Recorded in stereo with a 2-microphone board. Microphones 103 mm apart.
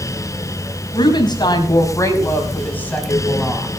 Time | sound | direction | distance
0.9 | a woman speaking | 50° left (ahead or behind) | 4.5 m